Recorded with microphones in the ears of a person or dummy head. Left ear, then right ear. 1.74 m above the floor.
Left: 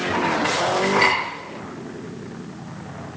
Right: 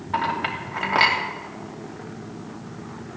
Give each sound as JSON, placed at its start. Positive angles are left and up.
{"t": 0.1, "sound": "a clink", "side_deg": -60, "distance_m": 3.0}